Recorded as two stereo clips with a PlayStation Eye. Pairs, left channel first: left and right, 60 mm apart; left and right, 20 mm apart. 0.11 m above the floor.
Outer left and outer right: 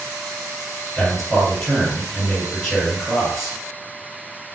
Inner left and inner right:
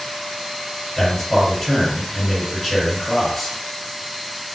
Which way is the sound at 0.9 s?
10° left (ahead or behind).